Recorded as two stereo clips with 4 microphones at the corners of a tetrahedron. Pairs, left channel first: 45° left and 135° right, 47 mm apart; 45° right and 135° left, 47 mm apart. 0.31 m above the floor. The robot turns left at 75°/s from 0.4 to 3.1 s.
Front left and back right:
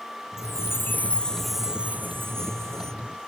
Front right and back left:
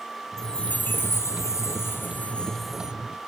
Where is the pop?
I don't hear a pop.